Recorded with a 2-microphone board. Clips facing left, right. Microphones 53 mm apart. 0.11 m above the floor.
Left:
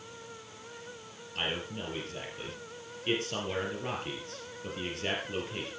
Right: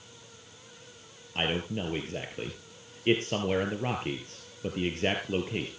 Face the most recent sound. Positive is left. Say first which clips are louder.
# right 5 dB
turn(degrees=-30)  # may be behind; listen again after turning